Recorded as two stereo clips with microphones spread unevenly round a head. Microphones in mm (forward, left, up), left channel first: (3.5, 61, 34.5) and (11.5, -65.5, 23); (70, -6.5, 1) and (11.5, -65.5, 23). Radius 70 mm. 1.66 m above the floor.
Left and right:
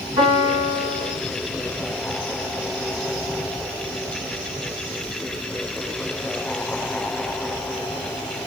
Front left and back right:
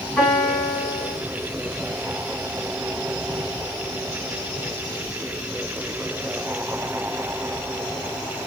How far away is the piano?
About 1.7 m.